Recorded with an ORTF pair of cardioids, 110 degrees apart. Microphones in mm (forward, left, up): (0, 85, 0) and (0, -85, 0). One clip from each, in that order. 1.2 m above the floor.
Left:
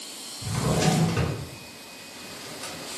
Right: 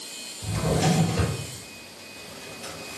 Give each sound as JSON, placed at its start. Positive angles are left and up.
{"t": 0.4, "sound": "a drawer", "azimuth_deg": 65, "distance_m": 1.8}